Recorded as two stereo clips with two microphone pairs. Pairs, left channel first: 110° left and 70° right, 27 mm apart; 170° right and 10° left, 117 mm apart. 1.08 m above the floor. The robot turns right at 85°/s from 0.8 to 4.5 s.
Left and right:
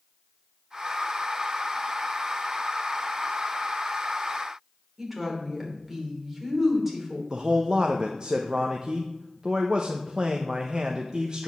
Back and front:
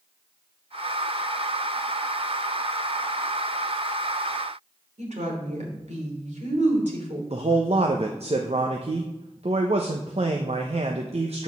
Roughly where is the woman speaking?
Ahead.